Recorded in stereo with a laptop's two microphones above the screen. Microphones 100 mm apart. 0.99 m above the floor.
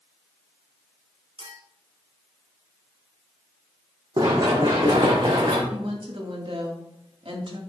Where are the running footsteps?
45° right (ahead or behind), 2 m; by 5.6 s 55° right (ahead or behind), 3.5 m.